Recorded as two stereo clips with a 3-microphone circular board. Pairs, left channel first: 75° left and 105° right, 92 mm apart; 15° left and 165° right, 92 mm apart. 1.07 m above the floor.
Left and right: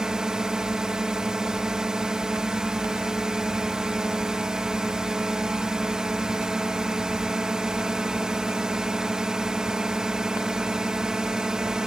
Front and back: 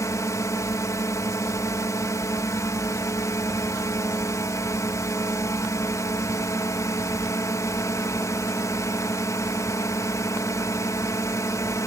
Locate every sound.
0.0 s a drone: 25° right